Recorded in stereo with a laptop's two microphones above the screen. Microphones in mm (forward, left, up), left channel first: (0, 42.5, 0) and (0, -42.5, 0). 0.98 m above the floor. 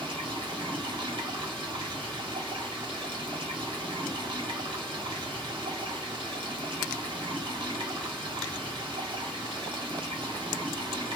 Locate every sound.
0.0 s running water: 75° right (ahead or behind), 1.5 m